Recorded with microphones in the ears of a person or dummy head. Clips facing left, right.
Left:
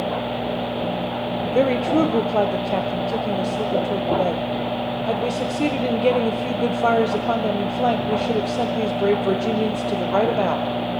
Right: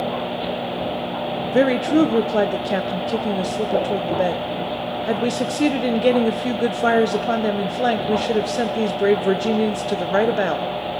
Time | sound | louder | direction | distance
1.5 | a woman speaking | right 2 dB | 15° right (ahead or behind) | 0.5 m